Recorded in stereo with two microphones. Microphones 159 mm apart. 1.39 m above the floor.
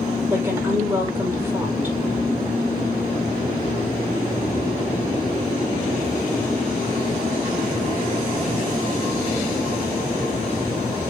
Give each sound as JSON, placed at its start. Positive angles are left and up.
{"t": 0.3, "sound": "a woman speaking", "side_deg": -15, "distance_m": 5.5}